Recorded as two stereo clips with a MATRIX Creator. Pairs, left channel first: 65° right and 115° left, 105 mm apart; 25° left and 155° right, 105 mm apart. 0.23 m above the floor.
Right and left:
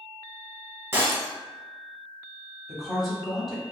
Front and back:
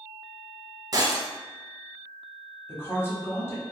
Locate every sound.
0.9 s breaking glass: 175° left, 0.6 m
2.7 s a woman speaking: 25° left, 1.0 m